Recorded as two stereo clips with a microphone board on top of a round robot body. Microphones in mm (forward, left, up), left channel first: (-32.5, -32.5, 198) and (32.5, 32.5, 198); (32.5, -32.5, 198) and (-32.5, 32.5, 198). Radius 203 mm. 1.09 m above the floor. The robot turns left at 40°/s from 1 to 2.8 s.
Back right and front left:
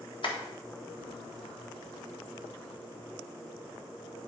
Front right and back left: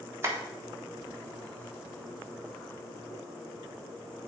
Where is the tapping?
165° right, 1.4 m.